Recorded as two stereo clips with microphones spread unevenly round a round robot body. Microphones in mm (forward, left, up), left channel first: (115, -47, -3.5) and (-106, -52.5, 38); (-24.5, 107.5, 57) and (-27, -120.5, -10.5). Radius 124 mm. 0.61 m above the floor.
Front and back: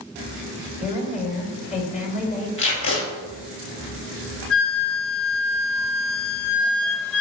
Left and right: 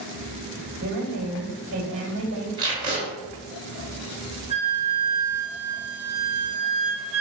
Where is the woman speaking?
50° right, 2.5 m.